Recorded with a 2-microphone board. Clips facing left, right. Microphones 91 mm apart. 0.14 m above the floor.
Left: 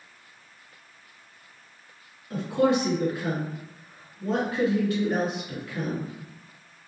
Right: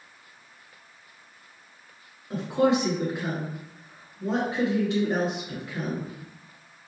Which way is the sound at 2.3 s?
25° right (ahead or behind).